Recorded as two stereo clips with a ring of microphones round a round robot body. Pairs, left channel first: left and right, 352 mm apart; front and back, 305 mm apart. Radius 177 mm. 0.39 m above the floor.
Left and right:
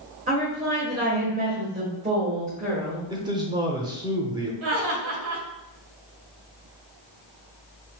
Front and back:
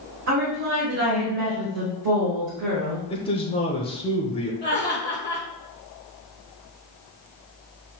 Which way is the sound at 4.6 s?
105° right.